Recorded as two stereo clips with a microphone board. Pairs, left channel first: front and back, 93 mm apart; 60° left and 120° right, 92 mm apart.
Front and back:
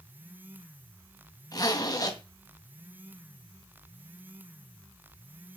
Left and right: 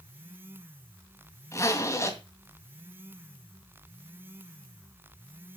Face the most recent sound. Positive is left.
turn(degrees=20)